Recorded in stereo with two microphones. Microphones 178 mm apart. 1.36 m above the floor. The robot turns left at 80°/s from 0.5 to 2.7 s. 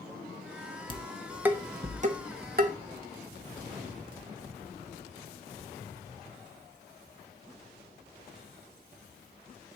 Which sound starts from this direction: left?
Dishes clattering, at 0.9 s.